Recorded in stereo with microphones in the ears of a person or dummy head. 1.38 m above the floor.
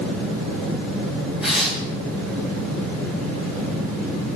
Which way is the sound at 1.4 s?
Centre (ahead or behind).